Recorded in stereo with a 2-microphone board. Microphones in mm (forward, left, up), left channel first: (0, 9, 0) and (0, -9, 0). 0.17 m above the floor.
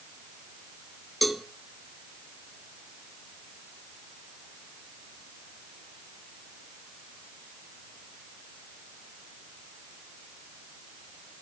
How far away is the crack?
I don't hear a crack.